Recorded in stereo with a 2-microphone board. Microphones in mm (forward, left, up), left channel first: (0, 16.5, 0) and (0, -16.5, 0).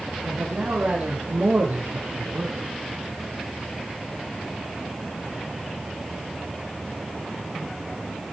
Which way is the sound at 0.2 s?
60° right (ahead or behind).